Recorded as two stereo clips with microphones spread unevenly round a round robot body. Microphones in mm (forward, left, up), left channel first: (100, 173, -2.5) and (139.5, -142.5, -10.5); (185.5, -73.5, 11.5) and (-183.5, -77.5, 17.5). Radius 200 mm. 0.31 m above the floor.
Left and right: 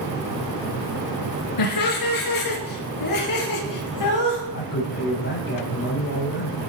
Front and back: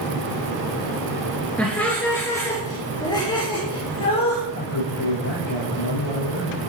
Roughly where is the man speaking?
Ahead left.